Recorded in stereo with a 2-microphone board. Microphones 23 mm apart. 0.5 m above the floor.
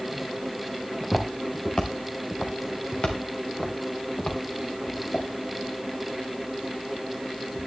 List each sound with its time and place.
1.0 s footsteps: 15° left (ahead or behind), 2.0 m; by 5.3 s 65° left (ahead or behind), 3.5 m